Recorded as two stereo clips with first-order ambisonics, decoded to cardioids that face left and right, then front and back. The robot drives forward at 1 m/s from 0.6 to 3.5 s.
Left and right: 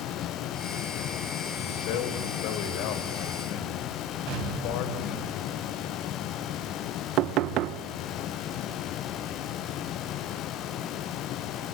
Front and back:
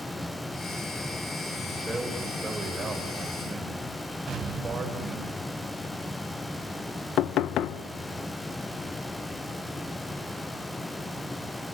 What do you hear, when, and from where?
1.6 s a man speaking: 90° left, 5 m; by 5.3 s 115° left, 5 m
4.3 s an explosion: 120° right, 4 m
7.2 s knocking: 50° right, 0.9 m